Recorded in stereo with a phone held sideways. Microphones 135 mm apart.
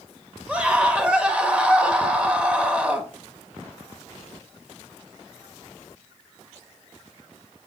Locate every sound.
0.5 s a scream: 10° right (ahead or behind), 1.6 m